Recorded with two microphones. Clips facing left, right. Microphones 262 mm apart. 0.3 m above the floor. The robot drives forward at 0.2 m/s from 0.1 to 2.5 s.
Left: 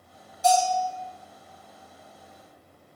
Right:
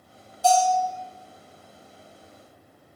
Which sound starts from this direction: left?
A bell, at 0.4 s.